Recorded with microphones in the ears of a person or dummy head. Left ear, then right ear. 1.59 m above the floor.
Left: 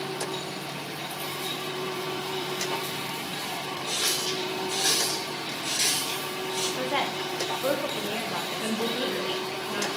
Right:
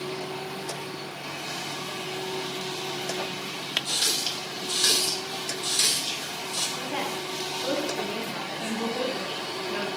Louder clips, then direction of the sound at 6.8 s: Left 3 dB; 25° left (ahead or behind).